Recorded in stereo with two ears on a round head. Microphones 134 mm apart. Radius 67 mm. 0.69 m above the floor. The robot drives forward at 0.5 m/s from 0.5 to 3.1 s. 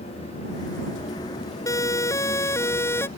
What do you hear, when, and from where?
1.7 s a siren: 20° left (ahead or behind); by 3.1 s 15° left (ahead or behind)